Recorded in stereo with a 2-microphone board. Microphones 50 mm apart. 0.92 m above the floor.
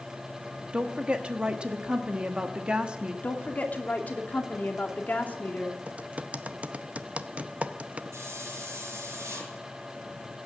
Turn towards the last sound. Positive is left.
turn(degrees=-85)